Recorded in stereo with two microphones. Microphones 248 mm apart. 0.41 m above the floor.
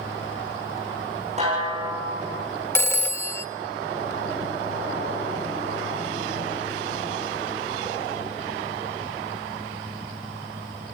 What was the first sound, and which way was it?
A snare drum, 25° right (ahead or behind).